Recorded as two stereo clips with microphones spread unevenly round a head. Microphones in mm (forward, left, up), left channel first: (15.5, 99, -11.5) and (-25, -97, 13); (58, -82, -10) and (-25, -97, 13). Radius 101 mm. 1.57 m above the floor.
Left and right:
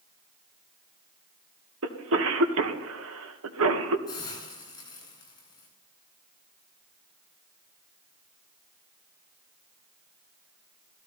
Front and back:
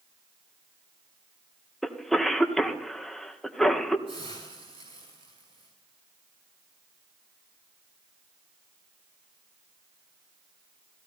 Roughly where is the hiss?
Behind left.